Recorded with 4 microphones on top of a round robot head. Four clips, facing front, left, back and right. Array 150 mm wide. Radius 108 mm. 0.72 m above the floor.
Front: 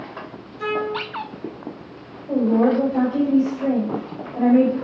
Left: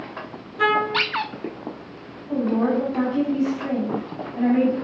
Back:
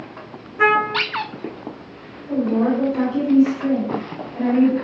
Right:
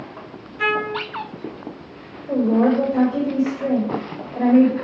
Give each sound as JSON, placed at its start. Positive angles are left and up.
{"t": 0.6, "sound": "a trumpet", "azimuth_deg": 155, "distance_m": 0.9}
{"t": 2.3, "sound": "a woman speaking", "azimuth_deg": -65, "distance_m": 4.5}